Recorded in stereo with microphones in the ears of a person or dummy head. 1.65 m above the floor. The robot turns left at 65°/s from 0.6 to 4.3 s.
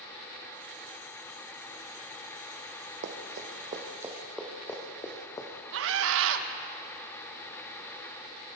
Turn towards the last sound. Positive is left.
turn(degrees=-80)